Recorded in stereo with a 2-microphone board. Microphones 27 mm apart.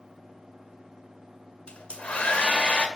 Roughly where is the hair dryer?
Left.